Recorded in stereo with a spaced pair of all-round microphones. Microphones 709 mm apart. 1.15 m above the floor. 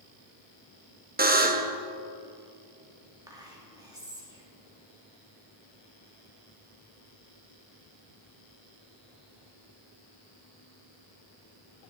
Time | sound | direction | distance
1.2 | a buzzer | 15° right (ahead or behind) | 0.5 m
3.3 | whispering | 5° right (ahead or behind) | 2 m